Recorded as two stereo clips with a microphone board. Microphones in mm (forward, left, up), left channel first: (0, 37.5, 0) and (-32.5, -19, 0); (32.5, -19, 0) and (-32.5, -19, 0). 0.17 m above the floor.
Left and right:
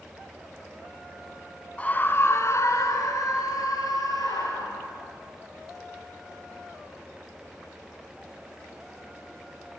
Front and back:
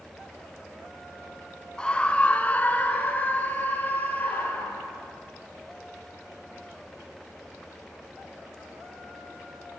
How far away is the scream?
About 1.4 m.